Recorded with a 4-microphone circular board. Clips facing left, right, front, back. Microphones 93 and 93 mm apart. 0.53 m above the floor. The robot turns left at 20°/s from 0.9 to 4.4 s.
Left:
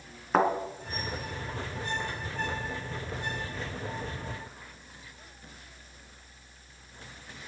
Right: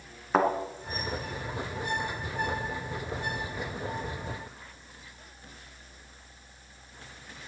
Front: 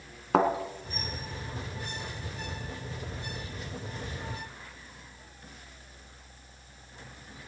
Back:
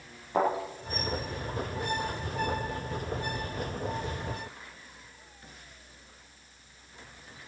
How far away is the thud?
About 2 m.